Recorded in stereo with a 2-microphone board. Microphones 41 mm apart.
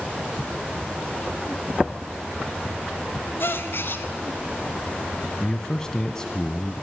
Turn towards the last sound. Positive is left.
turn(degrees=15)  # may be behind; listen again after turning